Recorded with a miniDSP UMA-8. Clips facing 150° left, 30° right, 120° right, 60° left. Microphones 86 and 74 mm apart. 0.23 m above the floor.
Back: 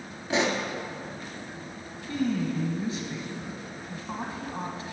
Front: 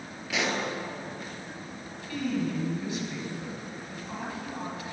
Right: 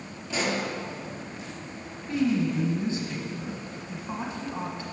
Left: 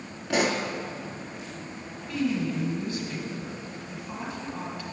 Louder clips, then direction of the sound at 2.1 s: Back 2 dB, right 2 dB; 170° right.